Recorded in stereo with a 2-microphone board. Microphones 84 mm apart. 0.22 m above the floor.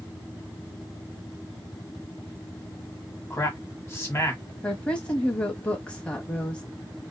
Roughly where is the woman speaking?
Centre.